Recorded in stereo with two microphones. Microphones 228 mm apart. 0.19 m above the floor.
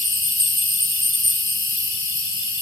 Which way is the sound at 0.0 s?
60° left (ahead or behind).